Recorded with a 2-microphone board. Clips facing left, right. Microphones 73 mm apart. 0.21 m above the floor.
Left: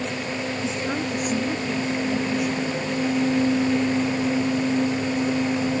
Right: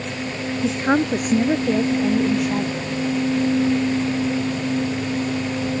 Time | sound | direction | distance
0.6 | a woman speaking | 60° right (ahead or behind) | ?